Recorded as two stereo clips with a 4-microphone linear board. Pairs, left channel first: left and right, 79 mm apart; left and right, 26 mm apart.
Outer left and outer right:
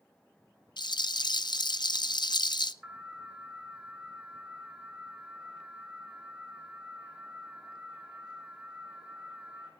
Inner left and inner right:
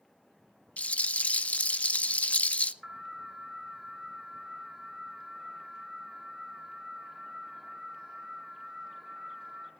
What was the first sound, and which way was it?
A rattle, 55° left (ahead or behind).